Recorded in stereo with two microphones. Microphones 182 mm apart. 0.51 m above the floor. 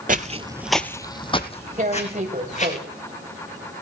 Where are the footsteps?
50° right (ahead or behind), 0.7 m; by 2.8 s 40° left (ahead or behind), 2.5 m.